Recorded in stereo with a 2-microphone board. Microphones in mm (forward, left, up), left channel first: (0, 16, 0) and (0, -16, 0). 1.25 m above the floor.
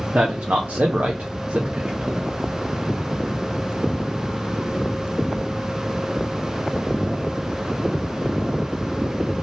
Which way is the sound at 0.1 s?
50° right (ahead or behind).